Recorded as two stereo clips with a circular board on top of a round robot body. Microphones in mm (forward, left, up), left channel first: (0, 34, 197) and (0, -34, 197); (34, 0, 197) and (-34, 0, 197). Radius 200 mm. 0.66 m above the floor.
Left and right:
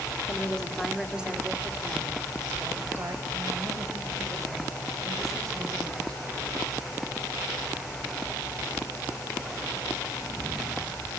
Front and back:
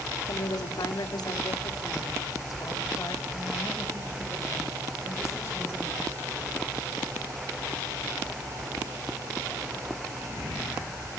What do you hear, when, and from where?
0.3 s a woman speaking: 20° left, 2.5 m; by 6.2 s 55° right, 9.5 m